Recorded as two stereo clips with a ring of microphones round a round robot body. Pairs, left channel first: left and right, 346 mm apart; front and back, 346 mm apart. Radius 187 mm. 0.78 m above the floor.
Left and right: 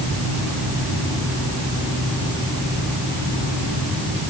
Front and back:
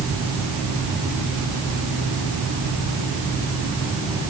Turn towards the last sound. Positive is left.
No sound to turn to.